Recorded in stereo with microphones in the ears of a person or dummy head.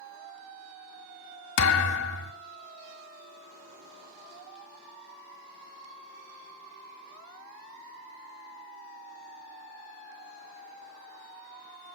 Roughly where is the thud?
Left.